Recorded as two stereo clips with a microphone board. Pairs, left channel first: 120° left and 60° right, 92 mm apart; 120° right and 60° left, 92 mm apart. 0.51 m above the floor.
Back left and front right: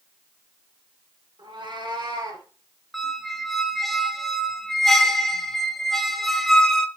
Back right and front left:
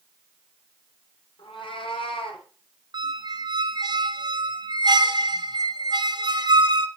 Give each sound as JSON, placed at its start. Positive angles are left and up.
{"t": 1.4, "sound": "a cat meowing", "azimuth_deg": -90, "distance_m": 3.5}
{"t": 2.9, "sound": "a squeak", "azimuth_deg": 30, "distance_m": 0.9}